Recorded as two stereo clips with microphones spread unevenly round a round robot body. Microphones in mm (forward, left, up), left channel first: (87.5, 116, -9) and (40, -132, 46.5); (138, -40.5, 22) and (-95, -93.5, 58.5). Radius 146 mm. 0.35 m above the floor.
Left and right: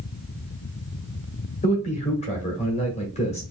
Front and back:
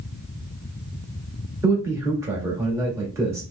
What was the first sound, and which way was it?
A man speaking, 110° left.